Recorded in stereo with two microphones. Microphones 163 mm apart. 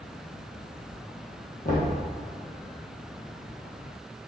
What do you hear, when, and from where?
1.6 s knocking: 60° left (ahead or behind), 3 m